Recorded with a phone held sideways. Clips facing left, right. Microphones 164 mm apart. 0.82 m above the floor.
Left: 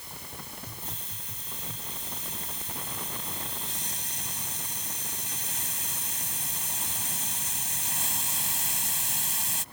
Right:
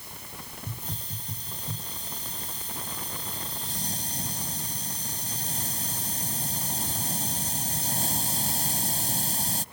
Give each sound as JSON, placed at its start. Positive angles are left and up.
{"t": 0.7, "sound": "a hiss", "side_deg": -40}